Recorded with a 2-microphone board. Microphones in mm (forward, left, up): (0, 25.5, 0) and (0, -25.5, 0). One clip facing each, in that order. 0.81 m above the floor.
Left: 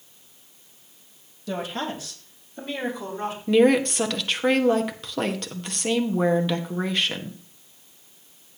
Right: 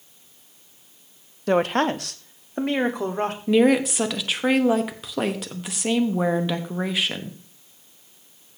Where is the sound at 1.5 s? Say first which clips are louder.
Right 9 dB; 55° right (ahead or behind), 0.7 m; by 3.4 s 60° right (ahead or behind), 1.9 m.